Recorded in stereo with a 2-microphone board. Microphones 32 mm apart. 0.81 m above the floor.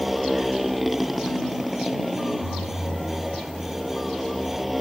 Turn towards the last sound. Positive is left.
turn(degrees=-5)  # may be behind; listen again after turning